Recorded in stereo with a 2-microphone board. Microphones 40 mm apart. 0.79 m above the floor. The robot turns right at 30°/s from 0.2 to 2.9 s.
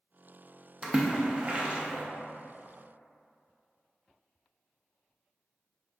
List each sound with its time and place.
0.8 s a splash: 25° right (ahead or behind), 0.5 m; by 2.0 s 40° right (ahead or behind), 0.5 m